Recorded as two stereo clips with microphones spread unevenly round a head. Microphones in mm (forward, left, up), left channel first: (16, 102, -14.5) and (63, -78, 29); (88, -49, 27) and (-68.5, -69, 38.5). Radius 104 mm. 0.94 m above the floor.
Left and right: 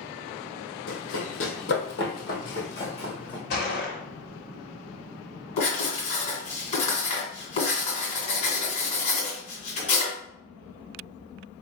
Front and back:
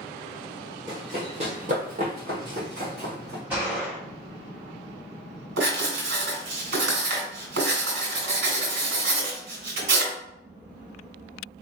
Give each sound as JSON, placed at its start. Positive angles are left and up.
{"t": 0.9, "sound": "running footsteps", "azimuth_deg": 120, "distance_m": 1.6}
{"t": 3.5, "sound": "a gunshot", "azimuth_deg": 105, "distance_m": 1.5}
{"t": 5.6, "sound": "writing", "azimuth_deg": 170, "distance_m": 2.0}